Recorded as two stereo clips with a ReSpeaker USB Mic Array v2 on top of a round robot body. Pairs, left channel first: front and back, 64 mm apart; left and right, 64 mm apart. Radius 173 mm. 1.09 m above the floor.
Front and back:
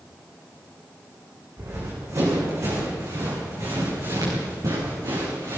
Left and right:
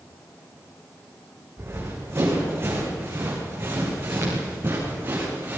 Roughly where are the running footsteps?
Behind right.